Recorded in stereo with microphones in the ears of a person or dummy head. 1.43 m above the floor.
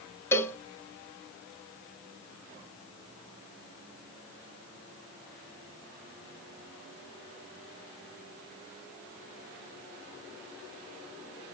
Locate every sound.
0.3 s a cowbell: 10° left (ahead or behind), 0.6 m